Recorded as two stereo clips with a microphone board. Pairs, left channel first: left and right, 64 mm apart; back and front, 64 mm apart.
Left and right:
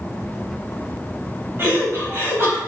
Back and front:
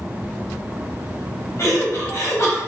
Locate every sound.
1.6 s laughter: 140° right, 4 m